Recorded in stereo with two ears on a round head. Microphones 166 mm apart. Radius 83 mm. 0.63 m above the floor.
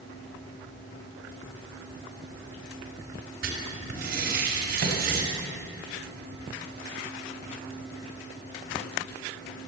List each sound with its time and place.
3.4 s writing: 55° right (ahead or behind), 4.5 m
4.8 s a microwave: 60° right (ahead or behind), 3.5 m